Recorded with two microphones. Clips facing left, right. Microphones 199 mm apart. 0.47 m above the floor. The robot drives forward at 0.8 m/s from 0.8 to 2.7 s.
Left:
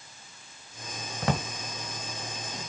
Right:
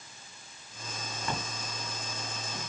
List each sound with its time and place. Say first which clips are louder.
1.2 s a drawer: left 8 dB; 85° left, 0.7 m; by 1.5 s 80° left, 0.7 m